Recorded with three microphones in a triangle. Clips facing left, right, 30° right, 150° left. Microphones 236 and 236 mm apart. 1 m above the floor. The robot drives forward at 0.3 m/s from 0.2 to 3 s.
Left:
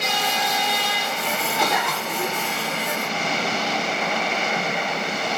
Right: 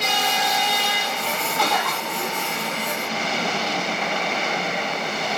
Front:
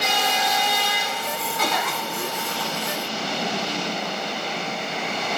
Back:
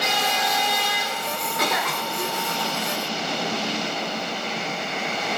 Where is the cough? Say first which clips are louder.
Even, back 1 dB; 160° left, 1.1 m; by 2.4 s 165° left, 1.4 m.